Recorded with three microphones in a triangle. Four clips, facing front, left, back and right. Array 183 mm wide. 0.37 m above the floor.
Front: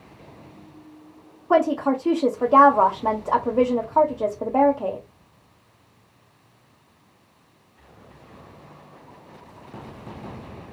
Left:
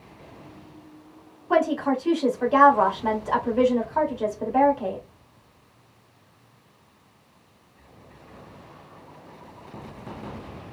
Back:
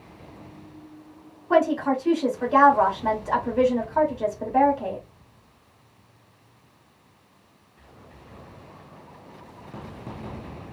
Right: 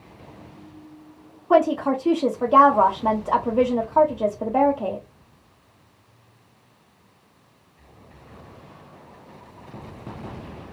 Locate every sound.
1.5 s a woman speaking: 30° right, 1.4 m